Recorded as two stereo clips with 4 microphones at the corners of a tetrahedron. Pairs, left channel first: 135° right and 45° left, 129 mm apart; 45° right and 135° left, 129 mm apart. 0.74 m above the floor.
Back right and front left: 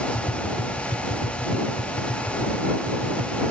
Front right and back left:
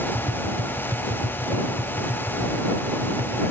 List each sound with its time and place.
0.1 s tapping: 160° right